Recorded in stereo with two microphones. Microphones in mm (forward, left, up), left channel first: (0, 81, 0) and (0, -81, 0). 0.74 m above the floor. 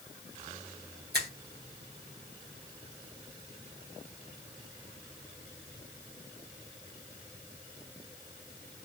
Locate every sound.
1.1 s a finger snap: 80° right, 1.9 m